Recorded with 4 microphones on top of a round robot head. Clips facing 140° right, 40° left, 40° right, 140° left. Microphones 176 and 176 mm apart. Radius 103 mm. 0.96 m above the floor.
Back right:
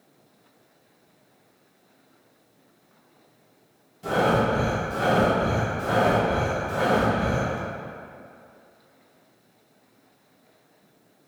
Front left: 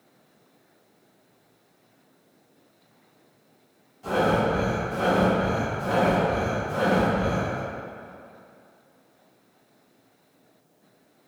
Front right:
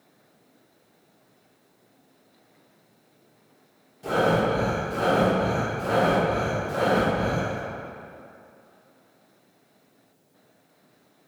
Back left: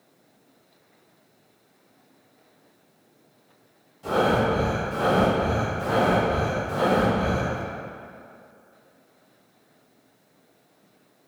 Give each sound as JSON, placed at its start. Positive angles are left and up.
{"t": 4.0, "sound": "breathing", "azimuth_deg": -105, "distance_m": 1.2}